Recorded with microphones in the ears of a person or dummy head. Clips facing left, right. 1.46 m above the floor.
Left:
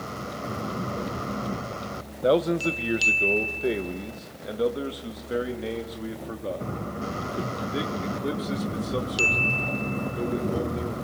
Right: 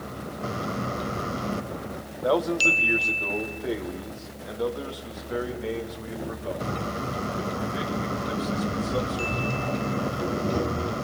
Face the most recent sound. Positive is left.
turn(degrees=35)  # may be behind; listen again after turning